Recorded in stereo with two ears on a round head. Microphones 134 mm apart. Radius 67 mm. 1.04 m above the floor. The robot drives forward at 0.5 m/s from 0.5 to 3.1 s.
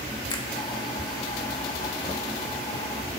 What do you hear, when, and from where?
0.3 s a finger snap: 30° left (ahead or behind), 1.3 m